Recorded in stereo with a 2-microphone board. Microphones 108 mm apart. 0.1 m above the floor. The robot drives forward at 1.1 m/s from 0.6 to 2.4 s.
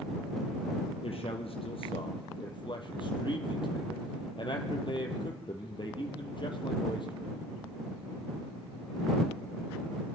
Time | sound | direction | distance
1.0 | a man speaking | 60° left (ahead or behind) | 2.5 m